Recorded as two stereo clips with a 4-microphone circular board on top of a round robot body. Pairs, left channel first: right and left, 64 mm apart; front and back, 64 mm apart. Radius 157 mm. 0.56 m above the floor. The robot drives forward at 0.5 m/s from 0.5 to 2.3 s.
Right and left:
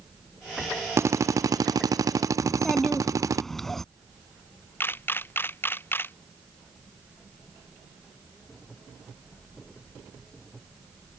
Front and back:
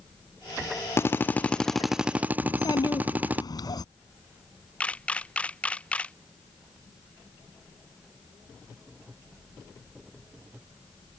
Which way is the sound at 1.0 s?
45° left.